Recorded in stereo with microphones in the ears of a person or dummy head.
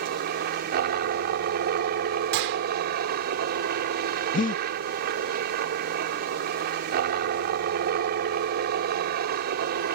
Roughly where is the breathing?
Left.